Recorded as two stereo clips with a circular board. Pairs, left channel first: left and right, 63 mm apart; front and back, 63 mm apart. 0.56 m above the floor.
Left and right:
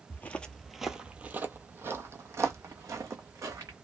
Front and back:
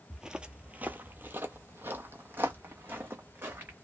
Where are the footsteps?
105° left, 0.6 m; by 3.7 s 120° right, 1.8 m.